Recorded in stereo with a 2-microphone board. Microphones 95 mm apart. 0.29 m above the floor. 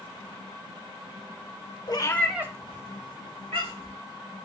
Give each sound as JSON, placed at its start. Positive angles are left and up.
{"t": 1.9, "sound": "a cat meowing", "side_deg": 50, "distance_m": 0.7}